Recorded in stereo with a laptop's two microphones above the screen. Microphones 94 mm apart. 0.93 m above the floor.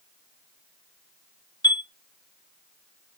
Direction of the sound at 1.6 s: 50° left (ahead or behind).